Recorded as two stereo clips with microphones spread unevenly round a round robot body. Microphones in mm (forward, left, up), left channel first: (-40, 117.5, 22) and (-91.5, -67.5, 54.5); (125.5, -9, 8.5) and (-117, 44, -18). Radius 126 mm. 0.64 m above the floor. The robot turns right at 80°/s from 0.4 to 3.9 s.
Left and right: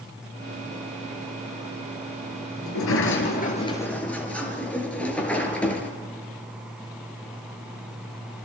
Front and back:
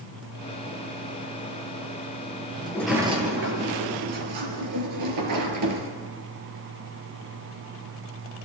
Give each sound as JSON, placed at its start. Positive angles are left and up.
{"t": 2.6, "sound": "a sliding door", "azimuth_deg": 60, "distance_m": 4.0}